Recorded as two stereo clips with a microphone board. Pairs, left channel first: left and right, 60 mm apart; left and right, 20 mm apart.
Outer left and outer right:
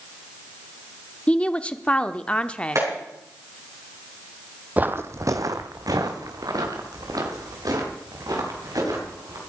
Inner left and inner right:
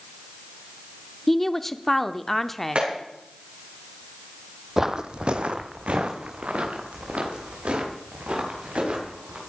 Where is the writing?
I don't hear writing.